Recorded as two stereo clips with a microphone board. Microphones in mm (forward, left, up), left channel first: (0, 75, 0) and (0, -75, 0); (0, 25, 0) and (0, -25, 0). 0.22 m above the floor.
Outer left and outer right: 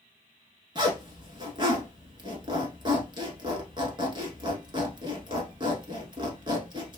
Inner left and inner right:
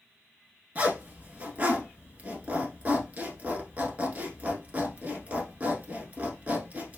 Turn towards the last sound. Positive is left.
turn(degrees=-30)  # may be behind; listen again after turning